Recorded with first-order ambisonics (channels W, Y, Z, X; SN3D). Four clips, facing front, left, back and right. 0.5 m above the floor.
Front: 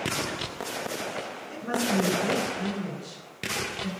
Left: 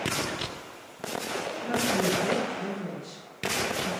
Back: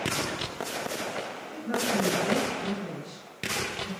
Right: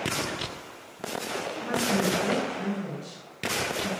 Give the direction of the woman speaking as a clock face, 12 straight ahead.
1 o'clock.